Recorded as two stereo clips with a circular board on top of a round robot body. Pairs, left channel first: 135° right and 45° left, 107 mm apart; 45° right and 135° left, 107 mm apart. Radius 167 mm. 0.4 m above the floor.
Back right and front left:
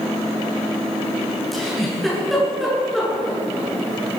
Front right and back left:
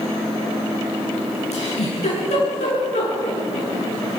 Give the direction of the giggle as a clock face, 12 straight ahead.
2 o'clock.